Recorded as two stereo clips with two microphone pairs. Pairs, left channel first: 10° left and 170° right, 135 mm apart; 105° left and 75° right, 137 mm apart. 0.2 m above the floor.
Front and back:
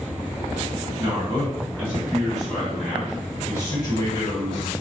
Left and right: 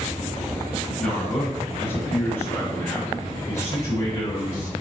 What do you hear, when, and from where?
1.0 s a man speaking: 175° left, 1.6 m; by 4.7 s 45° left, 2 m